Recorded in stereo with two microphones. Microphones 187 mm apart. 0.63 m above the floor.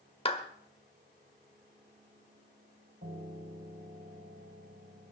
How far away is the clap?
About 1.4 m.